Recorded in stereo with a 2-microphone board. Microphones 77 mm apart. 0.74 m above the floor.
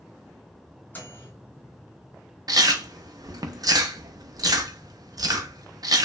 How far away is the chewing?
About 0.6 m.